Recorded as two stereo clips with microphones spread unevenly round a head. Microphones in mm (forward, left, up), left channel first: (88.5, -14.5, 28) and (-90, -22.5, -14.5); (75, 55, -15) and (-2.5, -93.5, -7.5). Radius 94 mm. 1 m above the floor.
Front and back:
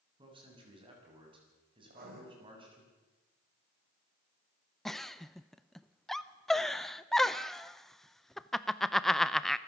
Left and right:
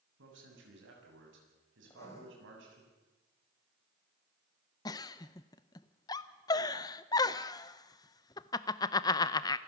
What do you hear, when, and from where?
0.2 s a man speaking: 115° right, 7.5 m
1.9 s writing: 140° left, 4 m
4.8 s a giggle: 110° left, 0.5 m